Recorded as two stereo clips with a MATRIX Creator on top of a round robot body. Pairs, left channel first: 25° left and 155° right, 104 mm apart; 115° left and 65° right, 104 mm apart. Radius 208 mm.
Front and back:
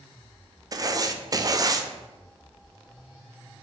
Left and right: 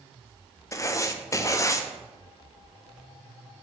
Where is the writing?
160° left, 0.6 m.